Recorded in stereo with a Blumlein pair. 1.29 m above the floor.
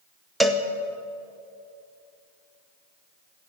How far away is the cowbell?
About 0.9 m.